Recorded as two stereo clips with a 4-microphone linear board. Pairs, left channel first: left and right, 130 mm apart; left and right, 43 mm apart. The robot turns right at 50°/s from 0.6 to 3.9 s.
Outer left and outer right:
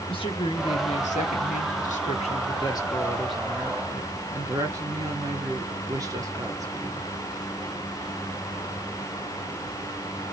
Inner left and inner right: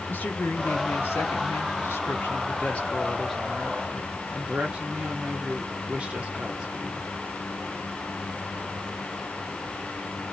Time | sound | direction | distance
0.1 | a woman speaking | 40° left | 1.7 m